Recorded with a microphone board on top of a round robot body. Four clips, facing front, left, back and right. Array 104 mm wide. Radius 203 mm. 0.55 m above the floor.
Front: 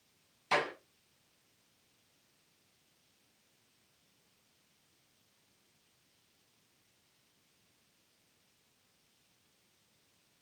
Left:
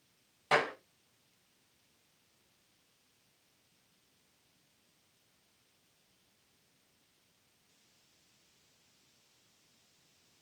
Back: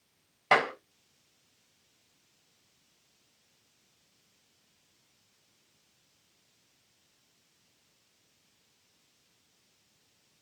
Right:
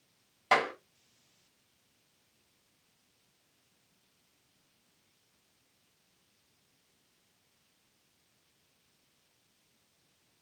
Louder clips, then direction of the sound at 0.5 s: Right 2 dB, back 7 dB; 170° right.